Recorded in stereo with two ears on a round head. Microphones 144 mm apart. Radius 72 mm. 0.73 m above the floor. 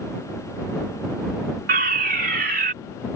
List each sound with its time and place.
1.7 s a fire alarm: 60° right (ahead or behind)